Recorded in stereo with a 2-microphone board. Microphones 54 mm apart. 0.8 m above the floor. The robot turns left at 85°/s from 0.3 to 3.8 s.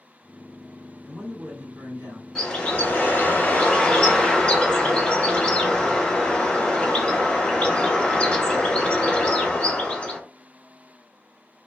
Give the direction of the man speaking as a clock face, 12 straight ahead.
12 o'clock.